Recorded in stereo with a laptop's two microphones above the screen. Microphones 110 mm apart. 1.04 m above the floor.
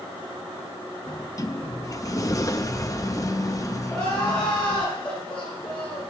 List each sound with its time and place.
1.1 s a sliding door: 30° left (ahead or behind), 0.6 m
3.9 s crying: 10° left (ahead or behind), 5.5 m